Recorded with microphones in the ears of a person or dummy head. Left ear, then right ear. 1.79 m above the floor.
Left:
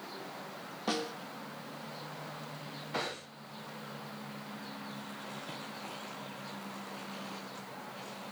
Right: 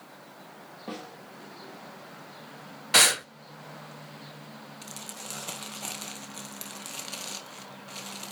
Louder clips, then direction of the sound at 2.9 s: Right 17 dB; 55° right (ahead or behind).